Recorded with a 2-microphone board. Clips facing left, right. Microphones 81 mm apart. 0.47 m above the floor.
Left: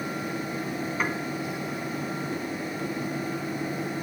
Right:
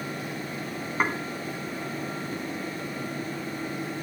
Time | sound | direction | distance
1.0 | dishes clattering | 35° right (ahead or behind) | 3 m